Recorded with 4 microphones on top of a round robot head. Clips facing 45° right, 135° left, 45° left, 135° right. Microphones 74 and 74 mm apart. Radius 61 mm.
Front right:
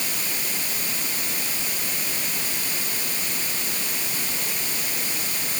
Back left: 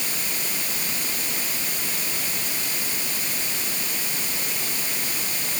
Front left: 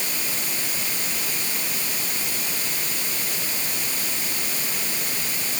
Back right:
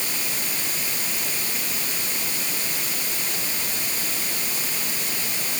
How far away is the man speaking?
I don't hear a man speaking.